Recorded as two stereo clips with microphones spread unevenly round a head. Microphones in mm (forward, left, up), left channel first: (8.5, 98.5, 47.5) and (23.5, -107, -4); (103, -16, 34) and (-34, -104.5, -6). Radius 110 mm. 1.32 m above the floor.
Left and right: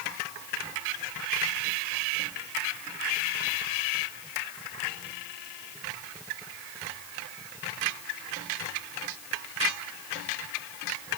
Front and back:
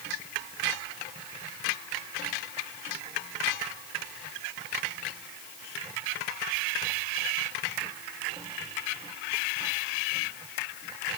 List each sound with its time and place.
Only background noise.